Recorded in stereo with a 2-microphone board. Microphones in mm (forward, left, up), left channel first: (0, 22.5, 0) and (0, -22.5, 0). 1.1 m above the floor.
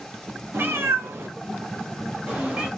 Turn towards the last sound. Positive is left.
turn(degrees=-30)  # may be behind; listen again after turning